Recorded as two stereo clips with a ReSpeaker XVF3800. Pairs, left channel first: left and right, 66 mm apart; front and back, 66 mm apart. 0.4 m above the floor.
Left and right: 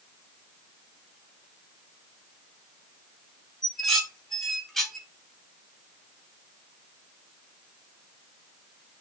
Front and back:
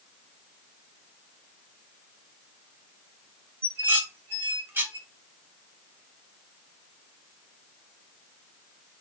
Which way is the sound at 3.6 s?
170° left.